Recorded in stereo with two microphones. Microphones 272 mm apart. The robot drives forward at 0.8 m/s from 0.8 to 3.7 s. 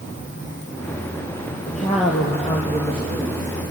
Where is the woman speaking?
25° left (ahead or behind), 2.5 m; by 3.5 s 15° left (ahead or behind), 4 m.